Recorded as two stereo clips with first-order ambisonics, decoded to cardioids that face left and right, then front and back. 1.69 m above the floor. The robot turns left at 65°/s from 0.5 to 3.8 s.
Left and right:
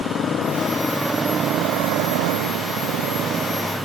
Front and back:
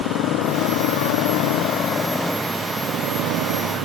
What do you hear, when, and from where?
0.0 s a motorcycle: 30° left; by 3.9 s straight behind